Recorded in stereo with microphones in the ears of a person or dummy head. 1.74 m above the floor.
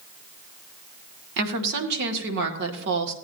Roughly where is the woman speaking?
Right.